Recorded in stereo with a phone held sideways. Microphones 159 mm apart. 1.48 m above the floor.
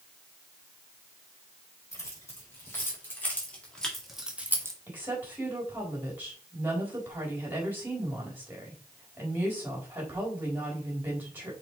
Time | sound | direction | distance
1.9 | keys jangling | 20° left (ahead or behind) | 4.5 m
4.9 | a woman speaking | 10° right (ahead or behind) | 3.5 m